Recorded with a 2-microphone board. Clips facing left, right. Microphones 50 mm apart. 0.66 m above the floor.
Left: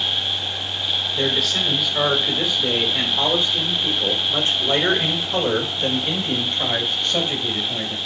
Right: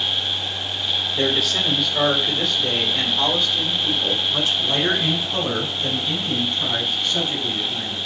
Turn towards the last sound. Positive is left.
turn(degrees=65)  # may be behind; listen again after turning